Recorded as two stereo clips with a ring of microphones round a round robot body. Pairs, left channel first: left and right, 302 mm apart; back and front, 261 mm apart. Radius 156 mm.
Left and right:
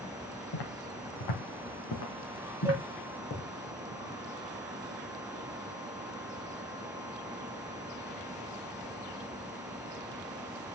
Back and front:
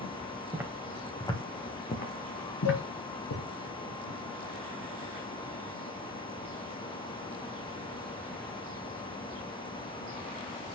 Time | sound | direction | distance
0.5 | footsteps | 80° left | 2.5 m
2.6 | a cowbell | 170° right | 3 m